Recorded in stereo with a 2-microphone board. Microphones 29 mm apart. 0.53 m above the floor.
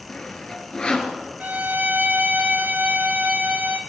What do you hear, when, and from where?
0.1 s sawing: 35° left (ahead or behind), 3 m
1.4 s a violin: 65° right (ahead or behind), 1.5 m